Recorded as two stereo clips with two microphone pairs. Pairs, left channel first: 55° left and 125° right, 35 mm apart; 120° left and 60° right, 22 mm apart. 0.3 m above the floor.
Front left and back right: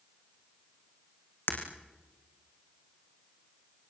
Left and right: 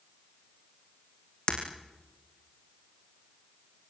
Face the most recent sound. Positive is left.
turn(degrees=70)